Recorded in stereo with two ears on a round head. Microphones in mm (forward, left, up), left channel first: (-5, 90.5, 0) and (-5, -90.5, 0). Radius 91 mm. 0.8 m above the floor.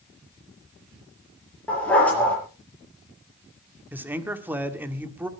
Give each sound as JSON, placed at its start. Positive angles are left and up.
{"t": 1.7, "sound": "a dog barking", "side_deg": 5, "distance_m": 6.0}
{"t": 3.9, "sound": "a man speaking", "side_deg": -10, "distance_m": 1.6}